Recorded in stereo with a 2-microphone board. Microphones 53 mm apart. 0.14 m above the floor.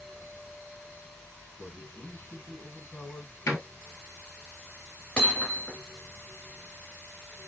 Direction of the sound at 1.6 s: 25° left (ahead or behind).